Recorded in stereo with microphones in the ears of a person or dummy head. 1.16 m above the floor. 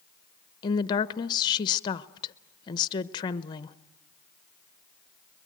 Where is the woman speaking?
25° left (ahead or behind), 0.8 m.